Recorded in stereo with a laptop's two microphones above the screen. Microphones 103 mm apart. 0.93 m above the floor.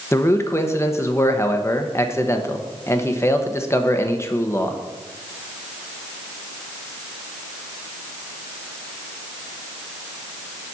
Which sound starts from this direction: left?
A man speaking, at 0.1 s.